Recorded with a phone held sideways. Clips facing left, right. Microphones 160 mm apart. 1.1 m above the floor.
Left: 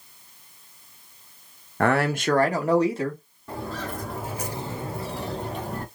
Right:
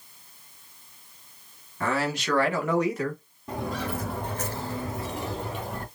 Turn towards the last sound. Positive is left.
turn(degrees=40)  # may be behind; listen again after turning